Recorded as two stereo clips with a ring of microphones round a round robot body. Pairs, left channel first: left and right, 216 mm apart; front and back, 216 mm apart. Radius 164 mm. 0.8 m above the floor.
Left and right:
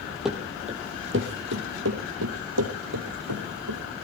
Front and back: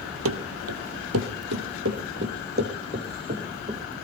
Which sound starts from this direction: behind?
Running footsteps, at 0.2 s.